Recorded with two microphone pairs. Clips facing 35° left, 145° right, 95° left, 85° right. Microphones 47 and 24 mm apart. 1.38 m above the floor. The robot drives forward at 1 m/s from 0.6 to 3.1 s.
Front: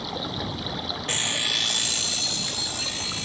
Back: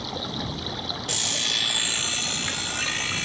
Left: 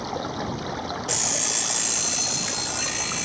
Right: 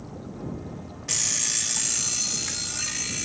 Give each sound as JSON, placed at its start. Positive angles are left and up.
{"t": 0.0, "sound": "running water", "azimuth_deg": 120}
{"t": 1.1, "sound": "an alarm clock", "azimuth_deg": 0}